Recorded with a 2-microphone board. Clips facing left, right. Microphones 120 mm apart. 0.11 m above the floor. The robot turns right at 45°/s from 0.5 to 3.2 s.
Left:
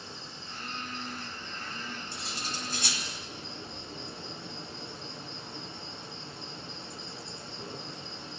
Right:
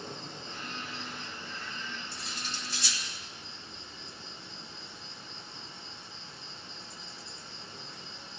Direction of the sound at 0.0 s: 50° right.